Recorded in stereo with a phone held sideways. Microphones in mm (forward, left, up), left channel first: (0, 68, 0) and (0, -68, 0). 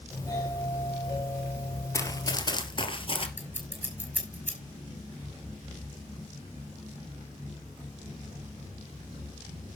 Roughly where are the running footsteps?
Left.